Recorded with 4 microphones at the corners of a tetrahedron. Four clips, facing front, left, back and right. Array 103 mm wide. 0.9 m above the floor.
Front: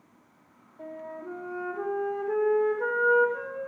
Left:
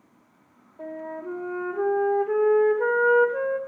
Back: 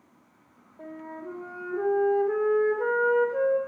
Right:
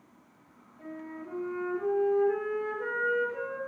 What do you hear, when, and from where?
0.8 s a flute: 105° left, 1.8 m